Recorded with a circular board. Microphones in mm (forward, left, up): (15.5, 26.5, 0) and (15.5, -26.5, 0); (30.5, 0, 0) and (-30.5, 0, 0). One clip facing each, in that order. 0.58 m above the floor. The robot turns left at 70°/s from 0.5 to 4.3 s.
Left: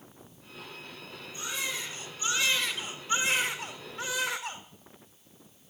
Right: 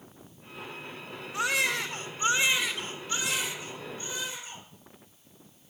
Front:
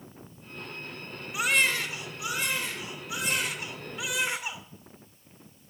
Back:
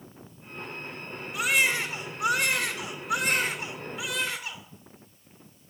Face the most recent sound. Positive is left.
turn(degrees=75)